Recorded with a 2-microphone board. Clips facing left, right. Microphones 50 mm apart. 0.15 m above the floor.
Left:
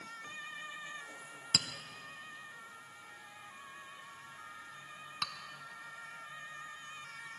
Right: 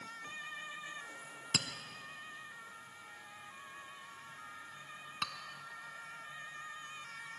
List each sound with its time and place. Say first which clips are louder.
1.5 s a clink: left 1 dB; 30° right (ahead or behind), 0.8 m